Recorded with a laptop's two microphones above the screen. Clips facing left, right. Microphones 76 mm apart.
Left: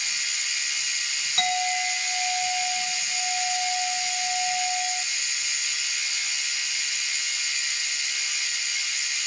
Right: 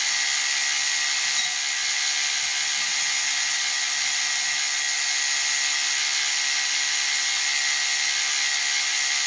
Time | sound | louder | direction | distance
0.0 | a machine running | right 5 dB | 70° right (ahead or behind) | 1.7 m
1.4 | a clink | left 6 dB | 75° left (ahead or behind) | 3 m